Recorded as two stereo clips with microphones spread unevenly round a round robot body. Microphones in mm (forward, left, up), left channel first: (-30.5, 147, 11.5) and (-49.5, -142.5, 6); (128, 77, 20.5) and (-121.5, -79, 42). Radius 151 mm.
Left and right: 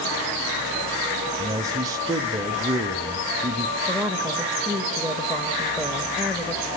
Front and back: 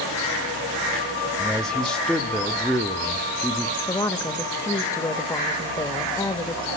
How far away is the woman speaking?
About 0.9 m.